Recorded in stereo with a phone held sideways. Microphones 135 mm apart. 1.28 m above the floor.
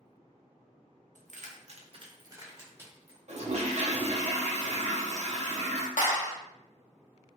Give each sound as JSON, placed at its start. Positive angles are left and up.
{"t": 1.1, "sound": "keys jangling", "side_deg": -75, "distance_m": 0.5}
{"t": 3.3, "sound": "a toilet flushing", "side_deg": -60, "distance_m": 0.6}
{"t": 6.0, "sound": "a clap", "side_deg": 75, "distance_m": 0.8}